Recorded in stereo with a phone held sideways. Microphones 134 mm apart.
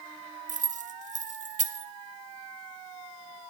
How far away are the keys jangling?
About 0.6 m.